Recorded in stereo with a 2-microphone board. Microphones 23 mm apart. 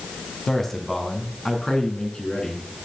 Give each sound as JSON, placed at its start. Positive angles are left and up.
{"t": 0.5, "sound": "a man speaking", "side_deg": 20, "distance_m": 1.7}